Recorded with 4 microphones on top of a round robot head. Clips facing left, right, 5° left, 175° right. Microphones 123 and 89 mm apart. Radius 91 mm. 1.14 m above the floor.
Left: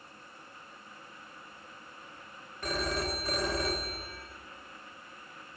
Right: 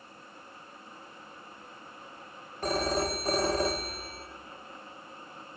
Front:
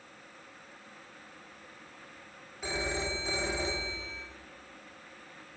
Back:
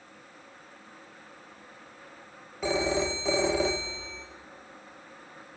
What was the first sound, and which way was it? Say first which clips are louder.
A phone ringing: right 5 dB, back 8 dB; 155° right.